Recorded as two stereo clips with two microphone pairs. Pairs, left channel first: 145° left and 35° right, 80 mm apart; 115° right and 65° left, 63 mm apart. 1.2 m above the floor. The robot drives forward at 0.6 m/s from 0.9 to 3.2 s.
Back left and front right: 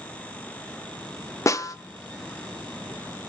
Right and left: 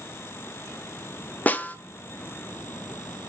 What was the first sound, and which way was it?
A snare drum, 175° right.